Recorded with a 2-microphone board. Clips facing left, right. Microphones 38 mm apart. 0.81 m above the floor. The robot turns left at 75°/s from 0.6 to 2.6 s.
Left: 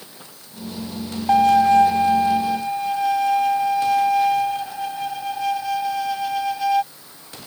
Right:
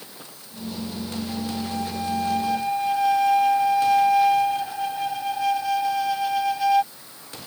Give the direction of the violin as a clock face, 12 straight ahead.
9 o'clock.